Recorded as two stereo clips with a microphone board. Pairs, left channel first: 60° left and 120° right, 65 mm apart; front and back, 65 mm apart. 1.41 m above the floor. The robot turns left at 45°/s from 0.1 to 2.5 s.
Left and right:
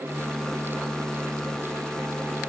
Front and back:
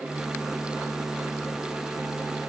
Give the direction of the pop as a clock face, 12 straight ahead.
No pop in this recording.